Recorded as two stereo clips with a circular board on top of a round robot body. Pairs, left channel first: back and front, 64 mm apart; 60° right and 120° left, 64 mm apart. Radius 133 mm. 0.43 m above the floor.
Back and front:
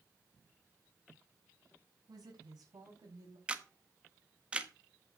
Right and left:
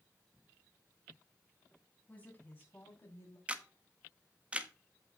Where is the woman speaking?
5° left, 4 m; by 3.4 s 15° right, 3.5 m.